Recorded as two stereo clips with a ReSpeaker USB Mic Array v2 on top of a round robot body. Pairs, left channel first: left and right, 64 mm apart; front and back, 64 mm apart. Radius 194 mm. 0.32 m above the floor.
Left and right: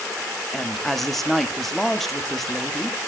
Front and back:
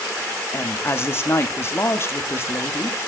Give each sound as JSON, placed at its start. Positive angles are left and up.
{"t": 0.5, "sound": "a woman speaking", "azimuth_deg": 5, "distance_m": 1.7}